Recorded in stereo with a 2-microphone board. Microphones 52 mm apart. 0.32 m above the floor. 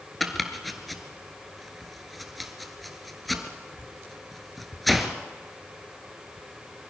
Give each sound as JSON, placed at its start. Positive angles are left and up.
{"t": 0.2, "sound": "chopping", "side_deg": 0, "distance_m": 1.4}